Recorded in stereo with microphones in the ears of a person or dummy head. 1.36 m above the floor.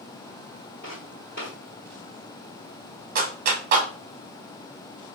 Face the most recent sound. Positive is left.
turn(degrees=-40)  # may be behind; listen again after turning